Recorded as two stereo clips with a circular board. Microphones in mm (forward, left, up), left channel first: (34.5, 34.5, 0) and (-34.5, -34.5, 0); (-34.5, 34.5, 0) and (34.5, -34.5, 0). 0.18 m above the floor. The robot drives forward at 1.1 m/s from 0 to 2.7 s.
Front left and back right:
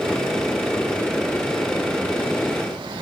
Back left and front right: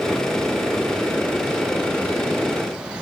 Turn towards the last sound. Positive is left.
No sound to turn to.